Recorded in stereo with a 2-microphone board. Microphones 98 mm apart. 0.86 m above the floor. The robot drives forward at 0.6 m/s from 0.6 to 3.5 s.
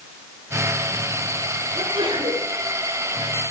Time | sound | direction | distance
1.8 | a sneeze | 65° right (ahead or behind) | 10 m